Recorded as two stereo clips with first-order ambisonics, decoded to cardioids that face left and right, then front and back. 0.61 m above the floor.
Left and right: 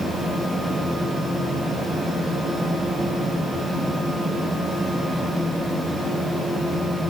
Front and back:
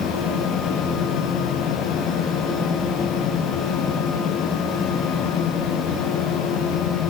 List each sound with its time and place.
Only background noise.